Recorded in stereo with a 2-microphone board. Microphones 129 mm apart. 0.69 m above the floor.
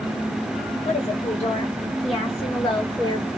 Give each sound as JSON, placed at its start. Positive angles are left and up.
{"t": 0.8, "sound": "a woman speaking", "side_deg": 55, "distance_m": 2.5}